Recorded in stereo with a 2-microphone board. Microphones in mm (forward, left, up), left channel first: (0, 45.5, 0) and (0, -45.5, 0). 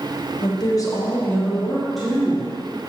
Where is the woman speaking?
50° left (ahead or behind), 1.4 m; by 2.5 s 10° right (ahead or behind), 2 m.